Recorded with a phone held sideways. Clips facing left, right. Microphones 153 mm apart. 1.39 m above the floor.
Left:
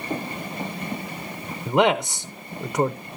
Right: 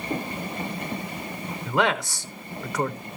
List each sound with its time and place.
1.7 s a man speaking: 25° left (ahead or behind), 0.5 m